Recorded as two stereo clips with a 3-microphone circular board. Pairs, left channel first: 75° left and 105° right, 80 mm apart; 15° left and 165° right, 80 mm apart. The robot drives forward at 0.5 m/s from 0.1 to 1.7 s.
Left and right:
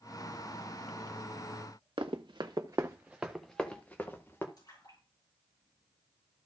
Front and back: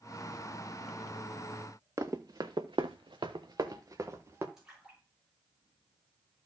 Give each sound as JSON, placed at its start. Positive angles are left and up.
{"t": 2.0, "sound": "running footsteps", "azimuth_deg": -115, "distance_m": 1.5}
{"t": 4.6, "sound": "a splash", "azimuth_deg": 110, "distance_m": 6.0}